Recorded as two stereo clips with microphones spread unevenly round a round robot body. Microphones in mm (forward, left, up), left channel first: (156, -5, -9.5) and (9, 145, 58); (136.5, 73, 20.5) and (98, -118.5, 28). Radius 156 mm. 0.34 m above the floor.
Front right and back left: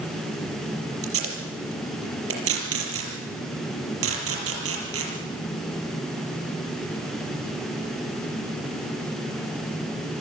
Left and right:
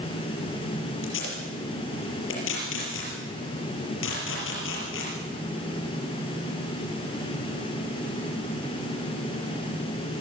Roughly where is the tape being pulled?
Behind left.